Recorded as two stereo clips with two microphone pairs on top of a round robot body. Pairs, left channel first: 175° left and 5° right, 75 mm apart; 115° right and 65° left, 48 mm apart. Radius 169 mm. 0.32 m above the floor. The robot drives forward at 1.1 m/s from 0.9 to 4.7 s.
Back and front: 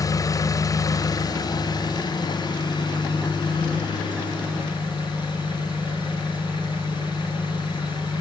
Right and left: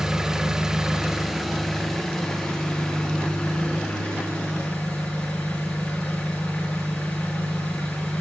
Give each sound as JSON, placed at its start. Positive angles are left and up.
{"t": 0.0, "sound": "an engine running", "azimuth_deg": 145, "distance_m": 1.7}